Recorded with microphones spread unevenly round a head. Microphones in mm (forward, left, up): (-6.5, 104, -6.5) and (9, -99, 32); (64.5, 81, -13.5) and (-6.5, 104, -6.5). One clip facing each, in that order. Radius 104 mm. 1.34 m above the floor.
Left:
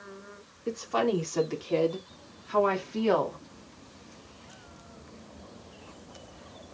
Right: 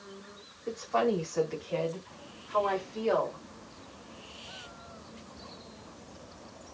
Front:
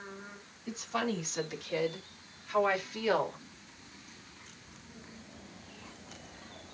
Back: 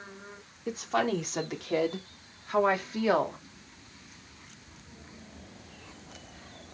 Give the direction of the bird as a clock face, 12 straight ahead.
No bird in this recording.